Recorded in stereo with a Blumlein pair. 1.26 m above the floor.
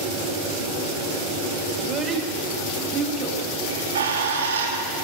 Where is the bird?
65° right, 3 m.